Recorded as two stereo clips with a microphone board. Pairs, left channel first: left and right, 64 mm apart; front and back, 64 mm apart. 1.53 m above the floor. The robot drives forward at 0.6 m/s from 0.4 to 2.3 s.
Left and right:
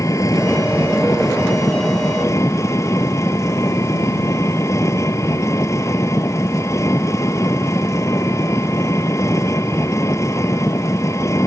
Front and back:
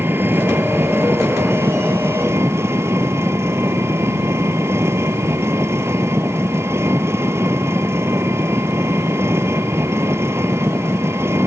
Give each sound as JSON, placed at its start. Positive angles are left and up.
{"t": 0.0, "sound": "an engine running", "azimuth_deg": 125}